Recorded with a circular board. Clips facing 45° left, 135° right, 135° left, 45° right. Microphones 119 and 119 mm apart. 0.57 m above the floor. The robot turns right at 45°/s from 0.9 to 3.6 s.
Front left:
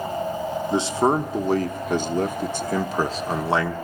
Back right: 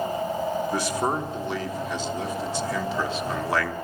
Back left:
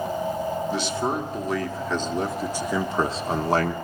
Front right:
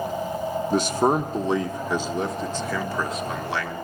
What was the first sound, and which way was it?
A man speaking, 15° right.